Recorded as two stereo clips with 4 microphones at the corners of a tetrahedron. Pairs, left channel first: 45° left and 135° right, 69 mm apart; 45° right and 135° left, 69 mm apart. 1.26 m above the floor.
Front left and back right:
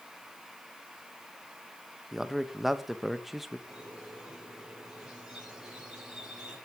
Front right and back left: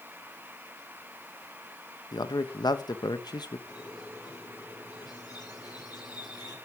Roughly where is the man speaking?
Ahead right.